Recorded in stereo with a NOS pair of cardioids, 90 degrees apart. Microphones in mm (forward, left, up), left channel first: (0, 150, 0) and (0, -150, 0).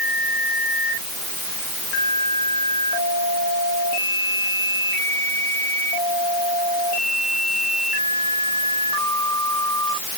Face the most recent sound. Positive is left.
No sound to turn to.